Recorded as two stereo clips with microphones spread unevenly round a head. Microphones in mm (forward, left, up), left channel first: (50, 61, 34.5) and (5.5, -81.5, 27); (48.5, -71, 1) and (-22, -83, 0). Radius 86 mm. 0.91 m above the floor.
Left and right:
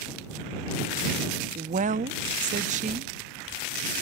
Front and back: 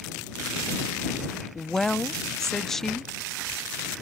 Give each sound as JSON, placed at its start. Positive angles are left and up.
{"t": 1.6, "sound": "a woman speaking", "azimuth_deg": -75}